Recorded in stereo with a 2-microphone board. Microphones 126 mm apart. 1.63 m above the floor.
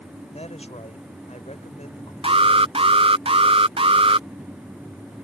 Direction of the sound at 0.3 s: 55° left (ahead or behind).